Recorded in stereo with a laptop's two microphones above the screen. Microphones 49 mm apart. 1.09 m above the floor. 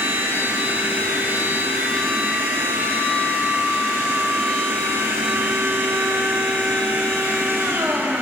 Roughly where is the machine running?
Right.